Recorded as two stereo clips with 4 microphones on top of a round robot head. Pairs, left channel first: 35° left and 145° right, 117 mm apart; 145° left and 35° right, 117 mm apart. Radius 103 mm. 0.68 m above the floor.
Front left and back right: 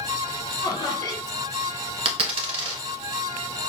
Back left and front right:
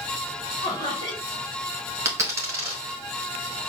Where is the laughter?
90° left, 1.8 m.